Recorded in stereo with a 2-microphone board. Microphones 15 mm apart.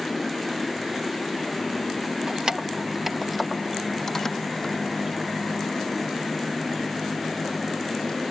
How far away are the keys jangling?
About 0.7 m.